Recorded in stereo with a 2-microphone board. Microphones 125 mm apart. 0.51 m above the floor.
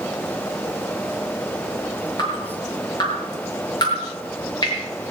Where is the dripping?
40° left (ahead or behind), 6 m.